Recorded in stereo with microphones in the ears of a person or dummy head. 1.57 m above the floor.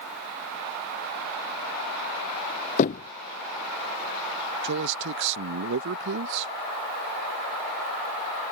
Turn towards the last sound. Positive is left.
turn(degrees=-70)  # may be behind; listen again after turning